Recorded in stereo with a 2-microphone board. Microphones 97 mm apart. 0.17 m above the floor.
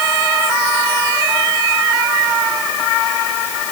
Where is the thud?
I don't hear a thud.